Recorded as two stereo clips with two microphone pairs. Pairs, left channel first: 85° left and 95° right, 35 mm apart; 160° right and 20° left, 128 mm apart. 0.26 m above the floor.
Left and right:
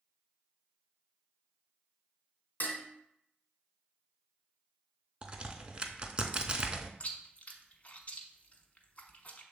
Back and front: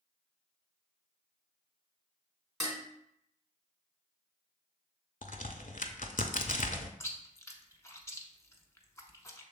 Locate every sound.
2.6 s dishes clattering: 110° left, 1.5 m
5.2 s a crack: 155° right, 0.6 m
7.0 s chewing: 135° left, 0.7 m